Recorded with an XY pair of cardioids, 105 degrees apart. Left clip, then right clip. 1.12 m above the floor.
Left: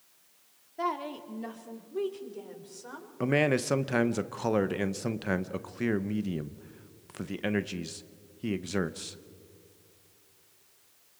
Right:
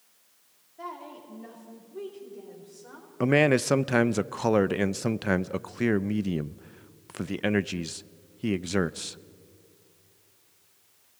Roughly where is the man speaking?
Ahead right.